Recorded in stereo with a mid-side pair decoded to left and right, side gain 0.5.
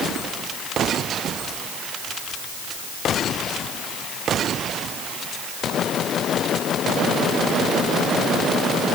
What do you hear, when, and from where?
Only background noise.